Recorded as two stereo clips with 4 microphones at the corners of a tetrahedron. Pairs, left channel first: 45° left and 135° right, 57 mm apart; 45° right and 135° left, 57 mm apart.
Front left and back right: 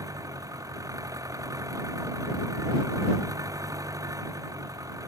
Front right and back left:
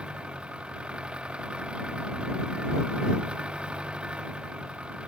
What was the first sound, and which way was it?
An engine running, 150° right.